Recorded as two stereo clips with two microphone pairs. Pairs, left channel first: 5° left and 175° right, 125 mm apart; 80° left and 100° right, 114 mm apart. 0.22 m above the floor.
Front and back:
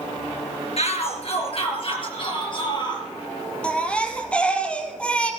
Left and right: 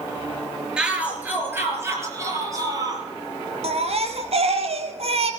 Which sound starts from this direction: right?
A baby crying, at 3.6 s.